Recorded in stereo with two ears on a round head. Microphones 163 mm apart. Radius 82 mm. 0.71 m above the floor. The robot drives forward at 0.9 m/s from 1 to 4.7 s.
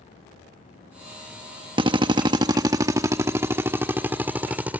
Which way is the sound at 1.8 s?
30° right (ahead or behind).